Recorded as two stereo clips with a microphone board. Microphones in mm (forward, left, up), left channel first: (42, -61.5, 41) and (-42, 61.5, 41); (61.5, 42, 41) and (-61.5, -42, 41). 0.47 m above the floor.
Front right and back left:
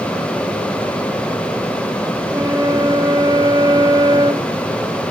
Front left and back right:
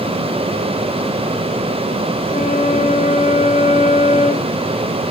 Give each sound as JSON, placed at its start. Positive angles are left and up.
{"t": 2.3, "sound": "a flute", "azimuth_deg": 60, "distance_m": 1.6}